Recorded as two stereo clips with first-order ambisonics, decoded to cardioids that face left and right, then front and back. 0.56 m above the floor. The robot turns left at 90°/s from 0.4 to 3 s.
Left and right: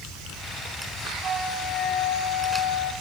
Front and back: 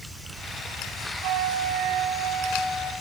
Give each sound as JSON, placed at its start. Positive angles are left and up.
{"t": 1.2, "sound": "a flute", "azimuth_deg": -150, "distance_m": 2.5}